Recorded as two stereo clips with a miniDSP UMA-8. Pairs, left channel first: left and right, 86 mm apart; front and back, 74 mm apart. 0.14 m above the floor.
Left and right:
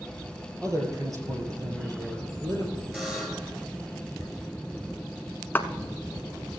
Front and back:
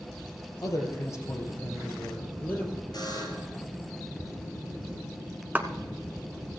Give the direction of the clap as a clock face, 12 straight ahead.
8 o'clock.